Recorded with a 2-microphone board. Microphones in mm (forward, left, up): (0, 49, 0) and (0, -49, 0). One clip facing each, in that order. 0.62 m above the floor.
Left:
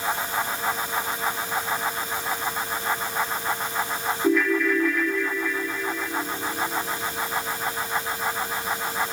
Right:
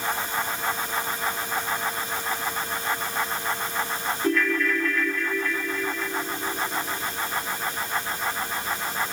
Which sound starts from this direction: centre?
A ringtone, at 4.2 s.